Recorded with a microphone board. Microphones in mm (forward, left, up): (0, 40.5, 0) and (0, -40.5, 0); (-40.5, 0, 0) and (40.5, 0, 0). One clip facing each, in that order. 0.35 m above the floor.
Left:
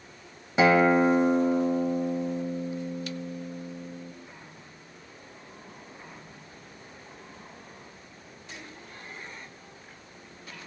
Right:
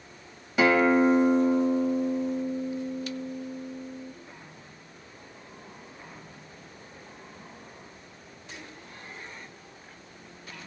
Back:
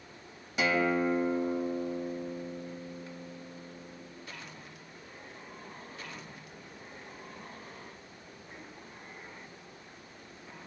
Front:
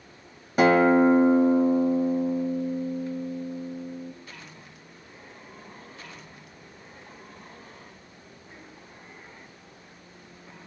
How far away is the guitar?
About 1.8 m.